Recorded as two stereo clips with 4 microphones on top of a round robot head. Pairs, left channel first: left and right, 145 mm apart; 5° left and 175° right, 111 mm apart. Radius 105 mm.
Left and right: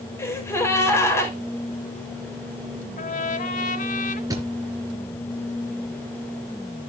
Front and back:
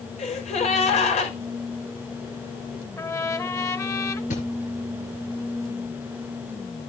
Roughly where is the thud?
Ahead right.